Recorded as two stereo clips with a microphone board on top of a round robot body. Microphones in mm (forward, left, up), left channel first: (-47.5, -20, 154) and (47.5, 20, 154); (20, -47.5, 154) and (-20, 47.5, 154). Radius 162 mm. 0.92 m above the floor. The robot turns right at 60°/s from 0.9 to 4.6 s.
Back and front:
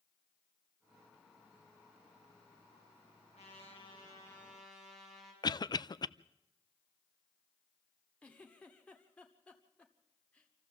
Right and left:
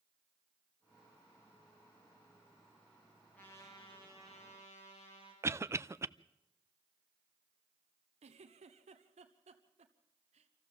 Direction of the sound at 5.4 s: 170° left.